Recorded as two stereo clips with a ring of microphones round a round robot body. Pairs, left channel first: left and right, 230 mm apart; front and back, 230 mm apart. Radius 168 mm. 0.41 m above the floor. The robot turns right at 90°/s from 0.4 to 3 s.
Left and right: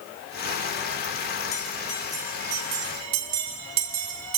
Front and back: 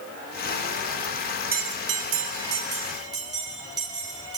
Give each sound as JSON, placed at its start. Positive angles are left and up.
{"t": 1.5, "sound": "a bell", "azimuth_deg": 125, "distance_m": 1.4}